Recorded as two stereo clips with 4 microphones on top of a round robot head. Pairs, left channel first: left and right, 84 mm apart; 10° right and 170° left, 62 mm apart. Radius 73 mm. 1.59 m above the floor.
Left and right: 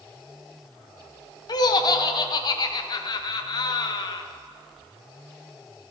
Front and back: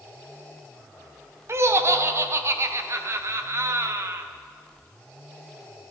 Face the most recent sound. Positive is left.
turn(degrees=130)